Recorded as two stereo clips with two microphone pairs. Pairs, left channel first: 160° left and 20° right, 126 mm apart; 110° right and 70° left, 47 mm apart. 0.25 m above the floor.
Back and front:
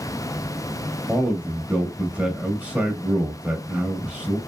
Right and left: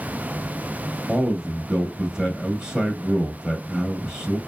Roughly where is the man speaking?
Ahead left.